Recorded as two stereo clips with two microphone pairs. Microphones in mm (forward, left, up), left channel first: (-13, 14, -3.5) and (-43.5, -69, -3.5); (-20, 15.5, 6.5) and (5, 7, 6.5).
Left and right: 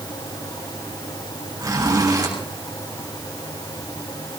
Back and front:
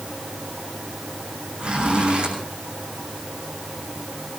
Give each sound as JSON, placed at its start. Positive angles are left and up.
{"t": 1.6, "sound": "a zipper", "azimuth_deg": -65, "distance_m": 7.5}